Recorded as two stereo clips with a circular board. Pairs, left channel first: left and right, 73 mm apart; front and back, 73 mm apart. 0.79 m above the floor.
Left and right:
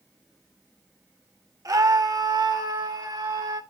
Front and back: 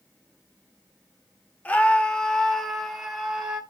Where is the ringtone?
I don't hear a ringtone.